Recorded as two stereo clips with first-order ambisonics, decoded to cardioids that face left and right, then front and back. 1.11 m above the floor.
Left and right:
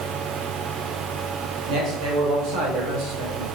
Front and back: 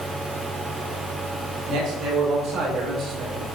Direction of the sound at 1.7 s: 125° right.